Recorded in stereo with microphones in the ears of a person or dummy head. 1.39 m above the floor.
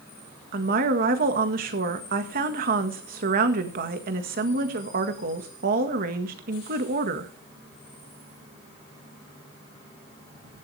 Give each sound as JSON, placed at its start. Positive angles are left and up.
{"t": 0.5, "sound": "a woman speaking", "side_deg": -45, "distance_m": 1.8}